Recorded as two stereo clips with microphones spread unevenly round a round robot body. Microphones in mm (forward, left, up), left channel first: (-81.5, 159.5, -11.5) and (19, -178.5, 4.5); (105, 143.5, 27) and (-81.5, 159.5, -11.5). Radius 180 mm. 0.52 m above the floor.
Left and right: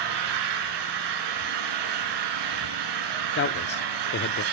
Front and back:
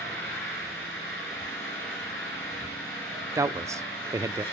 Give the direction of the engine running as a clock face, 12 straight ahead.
3 o'clock.